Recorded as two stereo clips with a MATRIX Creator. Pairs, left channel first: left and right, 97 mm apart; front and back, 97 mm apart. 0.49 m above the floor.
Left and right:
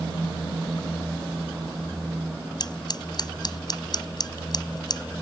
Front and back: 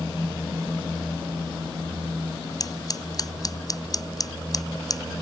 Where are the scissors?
50° left.